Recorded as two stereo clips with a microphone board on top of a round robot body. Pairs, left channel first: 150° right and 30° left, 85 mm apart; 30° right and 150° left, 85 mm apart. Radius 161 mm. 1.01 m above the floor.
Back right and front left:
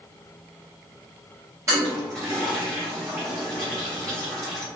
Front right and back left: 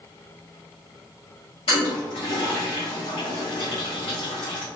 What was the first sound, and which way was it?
A toilet flushing, 30° right.